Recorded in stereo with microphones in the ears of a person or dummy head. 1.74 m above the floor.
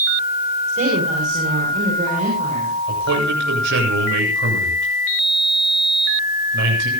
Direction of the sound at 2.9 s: 55° right (ahead or behind).